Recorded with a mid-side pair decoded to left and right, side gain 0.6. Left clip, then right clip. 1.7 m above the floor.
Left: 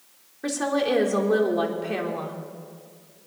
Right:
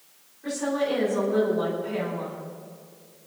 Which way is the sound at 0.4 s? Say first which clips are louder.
Left 2 dB; 65° left.